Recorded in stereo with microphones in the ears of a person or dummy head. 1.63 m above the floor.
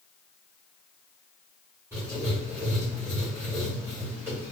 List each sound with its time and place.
1.9 s writing: 10° right (ahead or behind), 1.4 m